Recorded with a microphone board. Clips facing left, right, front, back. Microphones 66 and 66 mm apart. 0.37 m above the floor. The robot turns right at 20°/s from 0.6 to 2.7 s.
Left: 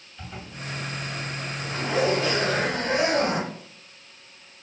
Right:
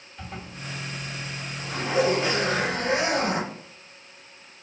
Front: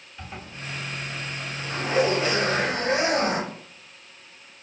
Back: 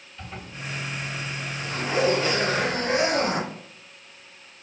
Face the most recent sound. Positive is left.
turn(degrees=-20)